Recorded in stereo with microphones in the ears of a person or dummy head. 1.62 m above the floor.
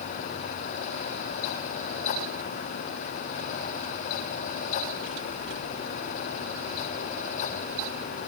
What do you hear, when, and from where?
Only background noise.